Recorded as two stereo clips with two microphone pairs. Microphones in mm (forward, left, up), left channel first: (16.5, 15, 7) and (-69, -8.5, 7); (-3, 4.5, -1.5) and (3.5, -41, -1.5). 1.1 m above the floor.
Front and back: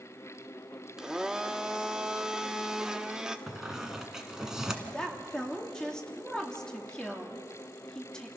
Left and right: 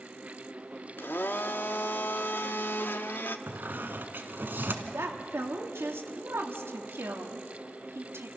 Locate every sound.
1.0 s a blender: 115° left, 0.8 m
3.5 s a squeak: 80° right, 1.5 m
4.8 s a woman speaking: 65° right, 1.9 m